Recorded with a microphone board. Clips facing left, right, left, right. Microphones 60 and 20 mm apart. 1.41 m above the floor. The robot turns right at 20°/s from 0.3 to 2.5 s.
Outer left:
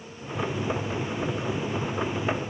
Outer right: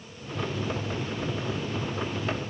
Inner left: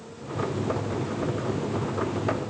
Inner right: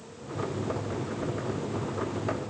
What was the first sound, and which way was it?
Only background noise.